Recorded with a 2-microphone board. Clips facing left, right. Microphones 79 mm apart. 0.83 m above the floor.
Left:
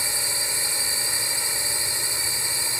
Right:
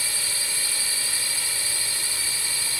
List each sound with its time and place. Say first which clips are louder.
0.0 s a drone: left 2 dB; 20° left (ahead or behind)